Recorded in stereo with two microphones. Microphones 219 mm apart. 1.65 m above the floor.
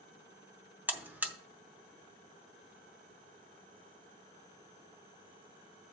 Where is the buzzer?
10° right (ahead or behind), 0.7 m.